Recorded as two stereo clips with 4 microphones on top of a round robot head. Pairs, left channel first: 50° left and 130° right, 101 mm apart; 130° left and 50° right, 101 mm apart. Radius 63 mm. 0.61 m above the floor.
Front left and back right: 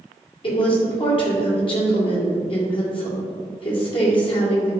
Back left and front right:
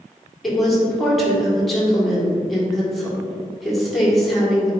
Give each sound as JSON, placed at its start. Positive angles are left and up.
{"t": 0.4, "sound": "a woman speaking", "azimuth_deg": 40, "distance_m": 1.9}